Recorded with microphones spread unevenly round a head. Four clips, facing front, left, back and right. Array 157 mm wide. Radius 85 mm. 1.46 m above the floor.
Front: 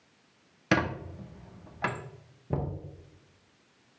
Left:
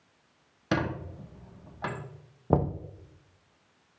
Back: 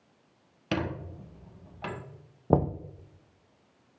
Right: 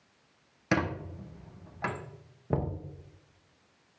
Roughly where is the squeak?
Ahead.